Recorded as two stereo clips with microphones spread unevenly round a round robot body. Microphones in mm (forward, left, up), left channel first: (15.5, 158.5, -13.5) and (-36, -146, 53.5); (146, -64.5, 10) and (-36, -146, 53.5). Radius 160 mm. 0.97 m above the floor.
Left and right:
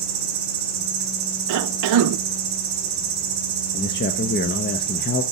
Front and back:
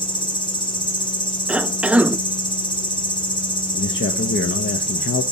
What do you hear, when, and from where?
0.0 s an insect: 35° right, 2.5 m
1.5 s a cough: 65° right, 0.5 m
3.7 s a man speaking: 30° left, 0.7 m